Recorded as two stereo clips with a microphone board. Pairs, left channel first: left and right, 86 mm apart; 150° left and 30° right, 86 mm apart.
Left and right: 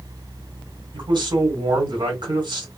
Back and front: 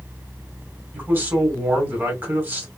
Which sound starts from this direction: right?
A man speaking, at 0.9 s.